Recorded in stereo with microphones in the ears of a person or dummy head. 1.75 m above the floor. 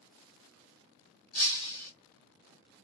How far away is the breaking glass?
About 2 m.